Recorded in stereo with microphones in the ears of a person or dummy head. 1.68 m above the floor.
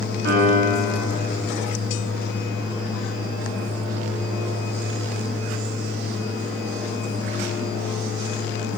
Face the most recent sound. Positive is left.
turn(degrees=-70)  # may be behind; listen again after turning